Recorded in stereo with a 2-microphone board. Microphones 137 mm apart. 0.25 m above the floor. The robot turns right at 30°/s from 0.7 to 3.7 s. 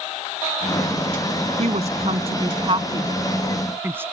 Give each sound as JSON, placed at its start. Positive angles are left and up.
{"t": 1.6, "sound": "a woman speaking", "side_deg": -55}